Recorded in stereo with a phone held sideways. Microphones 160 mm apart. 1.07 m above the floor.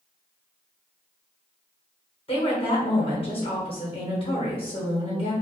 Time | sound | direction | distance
2.3 | a woman speaking | 35° left (ahead or behind) | 1.0 m